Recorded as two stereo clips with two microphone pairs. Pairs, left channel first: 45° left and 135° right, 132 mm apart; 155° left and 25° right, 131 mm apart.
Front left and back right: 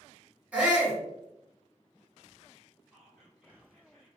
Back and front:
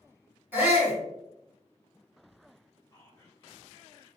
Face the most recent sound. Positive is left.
turn(degrees=130)